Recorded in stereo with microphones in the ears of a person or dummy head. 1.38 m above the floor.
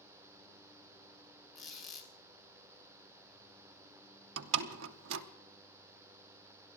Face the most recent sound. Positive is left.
turn(degrees=-80)